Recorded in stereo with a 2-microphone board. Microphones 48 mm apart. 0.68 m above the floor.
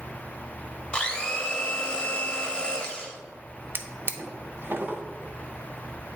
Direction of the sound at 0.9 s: 20° left (ahead or behind).